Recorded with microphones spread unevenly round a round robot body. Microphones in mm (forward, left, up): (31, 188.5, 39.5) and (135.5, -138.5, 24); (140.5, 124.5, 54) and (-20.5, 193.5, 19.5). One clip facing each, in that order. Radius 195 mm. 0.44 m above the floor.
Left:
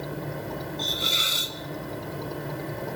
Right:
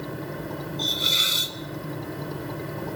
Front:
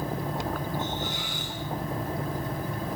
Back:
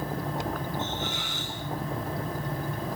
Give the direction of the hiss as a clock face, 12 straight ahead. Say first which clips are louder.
Right 1 dB, front 1 dB; 3 o'clock.